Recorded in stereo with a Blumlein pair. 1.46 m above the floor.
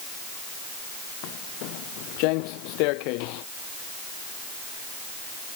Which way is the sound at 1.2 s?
45° left.